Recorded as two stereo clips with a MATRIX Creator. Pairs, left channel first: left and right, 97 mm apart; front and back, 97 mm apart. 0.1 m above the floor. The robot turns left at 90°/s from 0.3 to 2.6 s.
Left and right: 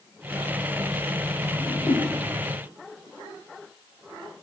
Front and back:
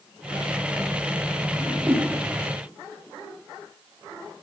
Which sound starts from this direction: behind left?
A whoosh, at 1.6 s.